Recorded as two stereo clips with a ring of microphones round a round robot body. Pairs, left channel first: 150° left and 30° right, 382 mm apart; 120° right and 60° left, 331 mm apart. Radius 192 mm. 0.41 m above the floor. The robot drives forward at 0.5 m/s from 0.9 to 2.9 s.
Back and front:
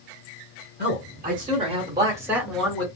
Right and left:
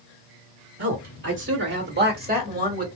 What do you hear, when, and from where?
0.8 s a man speaking: 25° left, 1.8 m; by 2.9 s 75° left, 1.4 m